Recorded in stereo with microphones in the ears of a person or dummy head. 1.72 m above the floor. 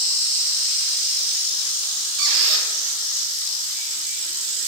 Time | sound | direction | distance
2.2 | a squeak | 55° right (ahead or behind) | 2.5 m